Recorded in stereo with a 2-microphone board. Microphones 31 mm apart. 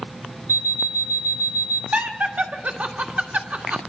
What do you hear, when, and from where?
0.5 s an alarm clock: 80° right, 1.8 m
1.9 s laughter: 55° right (ahead or behind), 1.5 m